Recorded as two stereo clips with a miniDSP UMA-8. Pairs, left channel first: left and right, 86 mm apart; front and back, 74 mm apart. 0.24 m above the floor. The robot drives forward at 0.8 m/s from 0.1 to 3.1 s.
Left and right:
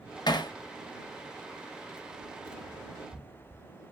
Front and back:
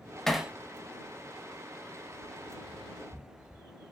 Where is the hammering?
80° left, 0.5 m; by 0.5 s 110° left, 0.5 m.